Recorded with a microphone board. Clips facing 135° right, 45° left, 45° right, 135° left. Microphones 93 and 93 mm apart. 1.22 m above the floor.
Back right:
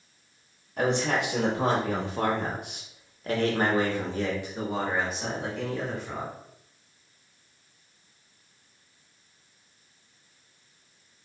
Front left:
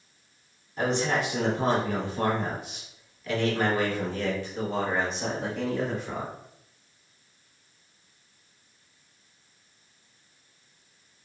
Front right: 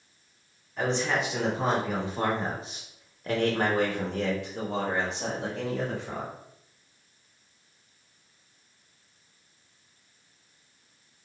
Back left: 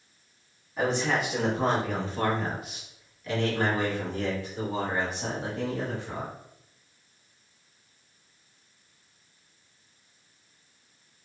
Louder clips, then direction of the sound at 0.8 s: Back right 1 dB, back left 1 dB; 145° right.